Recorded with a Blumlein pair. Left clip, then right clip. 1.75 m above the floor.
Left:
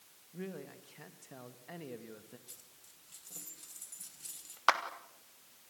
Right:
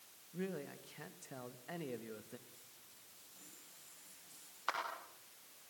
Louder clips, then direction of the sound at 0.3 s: Right 1 dB; 5° right.